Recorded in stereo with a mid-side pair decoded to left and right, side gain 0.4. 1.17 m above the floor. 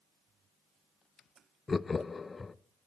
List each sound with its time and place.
1.7 s laughter: 30° left, 0.6 m